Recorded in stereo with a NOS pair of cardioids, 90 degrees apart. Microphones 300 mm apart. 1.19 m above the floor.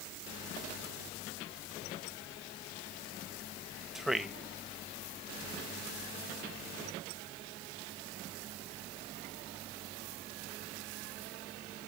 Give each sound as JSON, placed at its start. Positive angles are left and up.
{"t": 4.0, "sound": "a man speaking", "azimuth_deg": 0, "distance_m": 1.0}